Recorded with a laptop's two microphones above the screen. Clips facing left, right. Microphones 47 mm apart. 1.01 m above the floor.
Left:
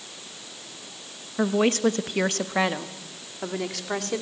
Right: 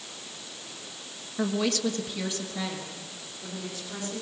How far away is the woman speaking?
About 1.2 m.